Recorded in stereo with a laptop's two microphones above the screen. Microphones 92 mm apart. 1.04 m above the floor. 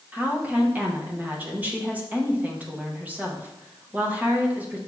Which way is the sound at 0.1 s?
15° right (ahead or behind).